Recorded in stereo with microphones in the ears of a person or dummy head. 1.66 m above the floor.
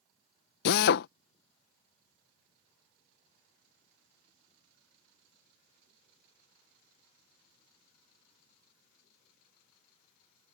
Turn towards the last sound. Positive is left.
turn(degrees=60)  # may be behind; listen again after turning